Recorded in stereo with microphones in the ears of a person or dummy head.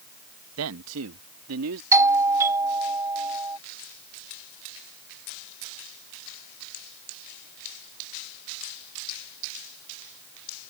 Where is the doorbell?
20° right (ahead or behind).